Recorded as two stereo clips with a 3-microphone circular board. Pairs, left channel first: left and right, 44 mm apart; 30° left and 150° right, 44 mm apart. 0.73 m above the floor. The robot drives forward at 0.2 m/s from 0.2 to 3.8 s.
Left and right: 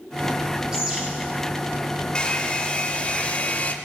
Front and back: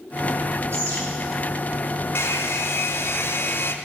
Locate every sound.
0.7 s a bird: 165° right, 4 m
2.1 s a hair dryer: 25° left, 0.7 m; by 3.8 s 45° left, 0.5 m